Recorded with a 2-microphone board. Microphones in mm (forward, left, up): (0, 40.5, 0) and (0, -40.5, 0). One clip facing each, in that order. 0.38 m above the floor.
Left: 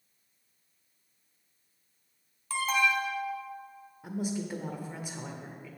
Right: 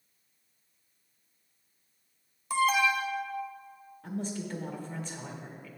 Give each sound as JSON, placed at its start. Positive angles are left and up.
{"t": 2.5, "sound": "an alarm", "side_deg": -15, "distance_m": 0.7}
{"t": 4.0, "sound": "a woman speaking", "side_deg": 10, "distance_m": 0.8}